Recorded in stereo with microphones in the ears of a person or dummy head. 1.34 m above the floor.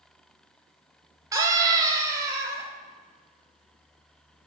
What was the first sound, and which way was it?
A scream, 15° right (ahead or behind).